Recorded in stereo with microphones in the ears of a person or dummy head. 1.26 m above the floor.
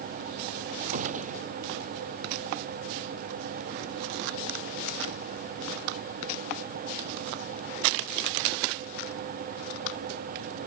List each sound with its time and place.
0.9 s a gunshot: 40° right (ahead or behind)